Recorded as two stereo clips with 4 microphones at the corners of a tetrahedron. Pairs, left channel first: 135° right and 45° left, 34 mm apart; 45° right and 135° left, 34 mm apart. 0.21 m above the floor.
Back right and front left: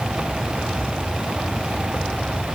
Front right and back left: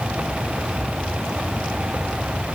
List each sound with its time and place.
Only background noise.